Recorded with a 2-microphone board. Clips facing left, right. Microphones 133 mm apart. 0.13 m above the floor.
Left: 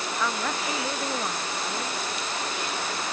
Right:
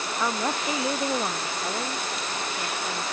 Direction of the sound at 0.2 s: 20° right (ahead or behind).